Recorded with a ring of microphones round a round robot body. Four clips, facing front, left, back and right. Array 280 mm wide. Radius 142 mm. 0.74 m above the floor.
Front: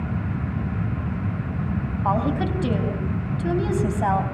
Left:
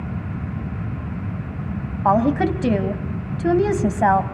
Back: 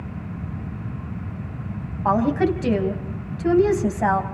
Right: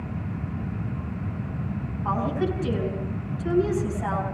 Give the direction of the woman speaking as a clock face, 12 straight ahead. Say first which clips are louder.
Left 9 dB, back 5 dB; 9 o'clock.